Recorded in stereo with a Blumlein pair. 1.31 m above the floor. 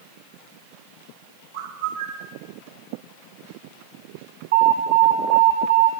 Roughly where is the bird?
Ahead right.